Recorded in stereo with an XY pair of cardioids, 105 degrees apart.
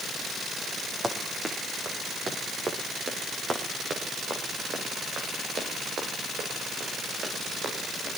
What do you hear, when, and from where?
1.0 s running footsteps: 20° right, 5.5 m; by 8.1 s 60° right, 12.5 m